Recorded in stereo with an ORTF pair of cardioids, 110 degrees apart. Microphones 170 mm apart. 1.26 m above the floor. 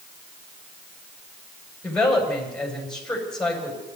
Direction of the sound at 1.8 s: 5° left.